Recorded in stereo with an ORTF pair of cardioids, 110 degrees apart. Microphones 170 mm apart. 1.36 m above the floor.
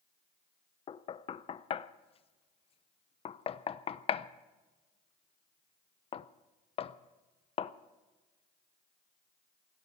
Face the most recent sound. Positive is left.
turn(degrees=35)